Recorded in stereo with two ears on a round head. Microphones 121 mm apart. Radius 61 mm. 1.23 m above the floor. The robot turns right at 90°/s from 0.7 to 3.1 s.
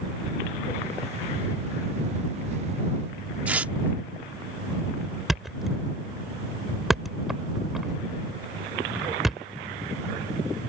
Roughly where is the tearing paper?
Centre.